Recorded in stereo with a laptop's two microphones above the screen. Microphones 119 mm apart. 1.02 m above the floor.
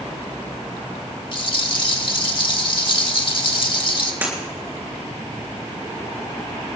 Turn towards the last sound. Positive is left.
turn(degrees=-20)  # may be behind; listen again after turning